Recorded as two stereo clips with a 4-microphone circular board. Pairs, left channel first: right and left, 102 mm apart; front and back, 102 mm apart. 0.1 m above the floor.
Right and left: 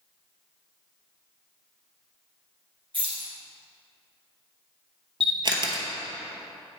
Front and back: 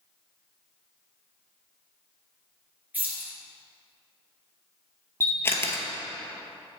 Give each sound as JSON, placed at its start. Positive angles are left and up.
{"t": 2.9, "sound": "keys jangling", "azimuth_deg": 110, "distance_m": 1.8}
{"t": 5.2, "sound": "a camera shutter", "azimuth_deg": 60, "distance_m": 0.8}